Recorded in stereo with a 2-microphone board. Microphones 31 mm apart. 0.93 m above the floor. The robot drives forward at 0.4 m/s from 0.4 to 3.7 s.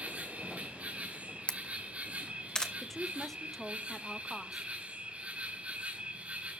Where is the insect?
55° right (ahead or behind), 4 m; by 6.6 s 40° right (ahead or behind), 5 m.